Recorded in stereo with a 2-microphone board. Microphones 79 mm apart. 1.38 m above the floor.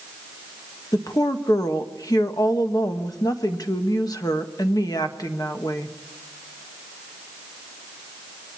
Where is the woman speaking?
50° left (ahead or behind), 1.5 m.